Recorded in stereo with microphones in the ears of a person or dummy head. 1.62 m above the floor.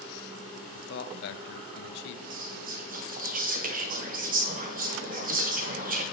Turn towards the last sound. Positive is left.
turn(degrees=-45)  # may be behind; listen again after turning